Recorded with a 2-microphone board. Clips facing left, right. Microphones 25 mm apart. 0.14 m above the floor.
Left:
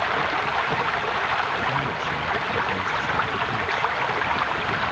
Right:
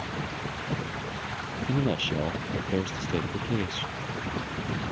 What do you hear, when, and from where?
0.0 s running water: 85° left
1.7 s a man speaking: 70° right (ahead or behind)